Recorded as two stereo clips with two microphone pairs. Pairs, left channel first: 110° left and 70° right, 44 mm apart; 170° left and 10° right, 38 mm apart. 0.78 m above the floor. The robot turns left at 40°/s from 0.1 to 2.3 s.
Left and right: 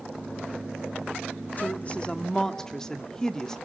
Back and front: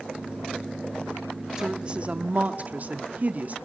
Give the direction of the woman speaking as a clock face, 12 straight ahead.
10 o'clock.